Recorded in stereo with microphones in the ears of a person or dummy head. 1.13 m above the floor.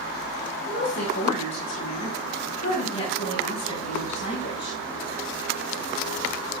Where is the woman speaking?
35° left (ahead or behind), 6 m; by 4.8 s 20° left (ahead or behind), 7 m.